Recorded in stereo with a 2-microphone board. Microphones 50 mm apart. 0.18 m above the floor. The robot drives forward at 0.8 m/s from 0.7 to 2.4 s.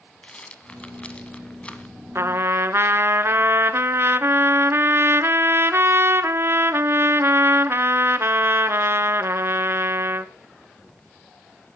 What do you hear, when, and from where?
0.2 s a rattle: 20° left (ahead or behind), 1.5 m
2.1 s a trumpet: 60° right (ahead or behind), 0.7 m; by 10.3 s 50° right (ahead or behind), 0.8 m